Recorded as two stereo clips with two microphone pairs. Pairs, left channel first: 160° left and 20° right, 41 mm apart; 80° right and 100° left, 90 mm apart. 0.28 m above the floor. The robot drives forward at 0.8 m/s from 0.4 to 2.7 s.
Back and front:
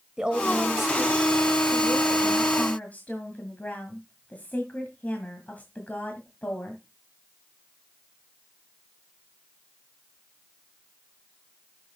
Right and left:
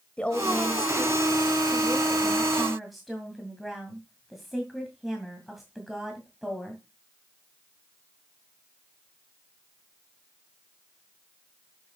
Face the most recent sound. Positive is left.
turn(degrees=-170)